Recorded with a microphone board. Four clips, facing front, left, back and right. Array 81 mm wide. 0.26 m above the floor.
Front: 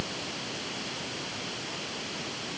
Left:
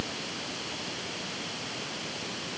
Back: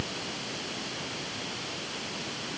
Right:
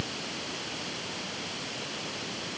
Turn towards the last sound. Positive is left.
No sound to turn to.